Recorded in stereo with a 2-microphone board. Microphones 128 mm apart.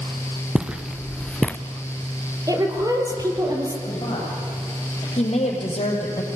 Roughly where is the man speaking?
Left.